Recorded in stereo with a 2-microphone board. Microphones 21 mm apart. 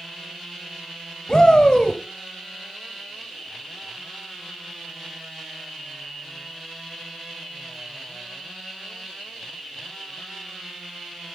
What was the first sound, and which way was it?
A shout, 40° left (ahead or behind).